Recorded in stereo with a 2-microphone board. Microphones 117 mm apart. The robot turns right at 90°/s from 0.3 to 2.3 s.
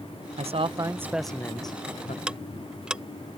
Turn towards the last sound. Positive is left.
turn(degrees=-5)  # may be behind; listen again after turning